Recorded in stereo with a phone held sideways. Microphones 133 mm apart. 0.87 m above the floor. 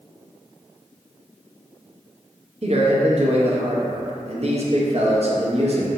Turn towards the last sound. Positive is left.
turn(degrees=-50)  # may be behind; listen again after turning